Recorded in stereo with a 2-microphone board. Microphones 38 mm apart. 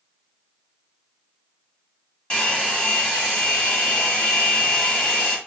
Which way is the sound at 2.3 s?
25° left (ahead or behind).